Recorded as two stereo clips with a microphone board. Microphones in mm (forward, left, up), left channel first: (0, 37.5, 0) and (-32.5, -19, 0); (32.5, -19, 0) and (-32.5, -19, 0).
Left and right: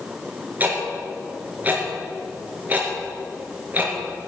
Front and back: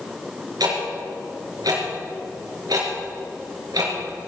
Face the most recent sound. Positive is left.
turn(degrees=175)